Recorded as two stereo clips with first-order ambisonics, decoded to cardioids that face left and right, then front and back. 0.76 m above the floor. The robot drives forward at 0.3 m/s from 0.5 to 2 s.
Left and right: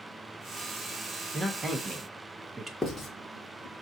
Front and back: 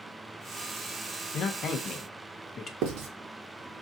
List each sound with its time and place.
1.3 s a man speaking: 20° right, 0.6 m; by 2.7 s 40° right, 0.5 m
2.8 s writing: 170° left, 0.9 m